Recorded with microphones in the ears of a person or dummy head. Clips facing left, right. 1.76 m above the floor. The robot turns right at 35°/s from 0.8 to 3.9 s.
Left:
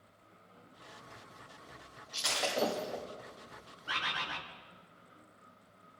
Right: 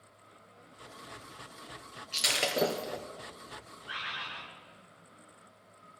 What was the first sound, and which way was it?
Breaking glass, 45° right (ahead or behind).